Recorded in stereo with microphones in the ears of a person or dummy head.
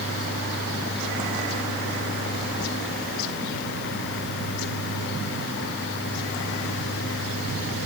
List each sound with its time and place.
Only background noise.